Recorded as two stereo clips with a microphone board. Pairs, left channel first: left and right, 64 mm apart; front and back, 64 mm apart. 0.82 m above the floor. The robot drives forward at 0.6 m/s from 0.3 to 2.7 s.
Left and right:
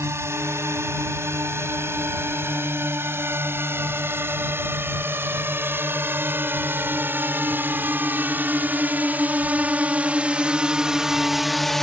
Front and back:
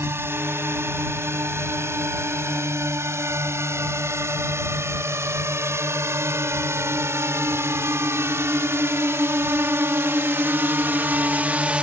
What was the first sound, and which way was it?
A drone, 130° right.